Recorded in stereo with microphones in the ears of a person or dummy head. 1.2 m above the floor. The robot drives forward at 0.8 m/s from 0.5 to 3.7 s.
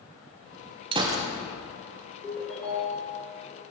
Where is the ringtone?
10° left (ahead or behind), 1.3 m; by 3.1 s 5° left (ahead or behind), 2.0 m.